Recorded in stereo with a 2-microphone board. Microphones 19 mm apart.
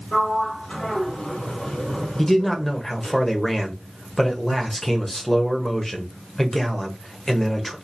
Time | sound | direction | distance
0.1 | a sliding door | 65° left (ahead or behind) | 2.5 m
2.2 | a man speaking | 20° left (ahead or behind) | 0.9 m